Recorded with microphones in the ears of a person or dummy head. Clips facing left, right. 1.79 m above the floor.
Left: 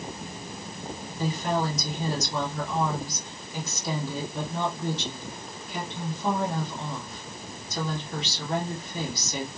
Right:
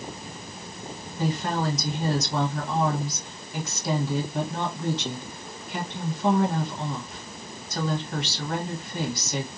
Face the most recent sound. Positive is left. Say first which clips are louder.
# even
turn(degrees=-55)  # may be behind; listen again after turning